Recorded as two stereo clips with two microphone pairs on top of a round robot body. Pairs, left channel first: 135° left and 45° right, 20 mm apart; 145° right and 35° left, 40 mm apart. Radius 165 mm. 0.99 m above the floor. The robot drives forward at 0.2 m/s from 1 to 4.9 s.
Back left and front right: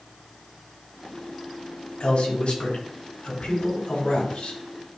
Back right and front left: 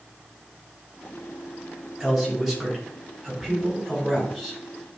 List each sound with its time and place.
2.0 s a man speaking: 130° left, 4 m; by 4.6 s 135° left, 4.5 m